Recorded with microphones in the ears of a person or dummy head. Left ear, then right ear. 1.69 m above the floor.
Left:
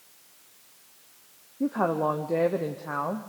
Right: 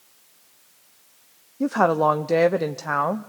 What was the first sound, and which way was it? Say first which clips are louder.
A woman speaking: right 7 dB; 70° right (ahead or behind).